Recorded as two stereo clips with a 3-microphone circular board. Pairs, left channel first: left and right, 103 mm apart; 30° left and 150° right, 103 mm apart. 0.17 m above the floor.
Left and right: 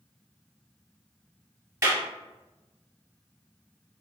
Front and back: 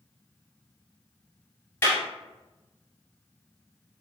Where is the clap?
35° right, 1.9 m.